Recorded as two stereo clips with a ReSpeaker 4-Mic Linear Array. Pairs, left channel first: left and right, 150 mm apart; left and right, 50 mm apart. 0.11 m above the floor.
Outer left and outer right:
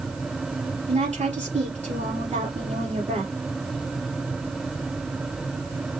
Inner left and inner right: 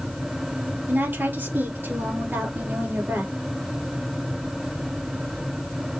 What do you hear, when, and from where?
0.9 s a woman speaking: 50° right (ahead or behind), 2.5 m